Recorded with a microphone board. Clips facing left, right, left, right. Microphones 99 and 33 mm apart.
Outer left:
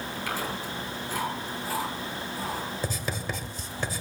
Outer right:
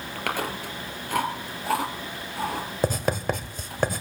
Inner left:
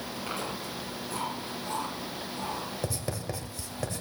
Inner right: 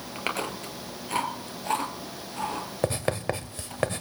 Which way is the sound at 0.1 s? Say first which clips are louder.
Outer right 5 dB, inner right 6 dB; 65° right (ahead or behind).